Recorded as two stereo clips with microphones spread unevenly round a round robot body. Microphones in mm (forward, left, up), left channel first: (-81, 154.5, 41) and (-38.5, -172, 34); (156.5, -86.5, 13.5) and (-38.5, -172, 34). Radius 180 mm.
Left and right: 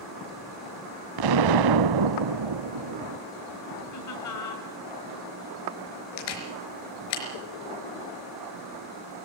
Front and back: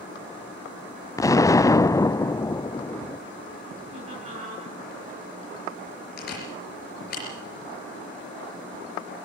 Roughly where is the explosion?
Ahead right.